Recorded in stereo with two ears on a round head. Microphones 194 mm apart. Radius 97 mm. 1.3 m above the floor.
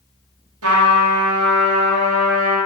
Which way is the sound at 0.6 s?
80° right.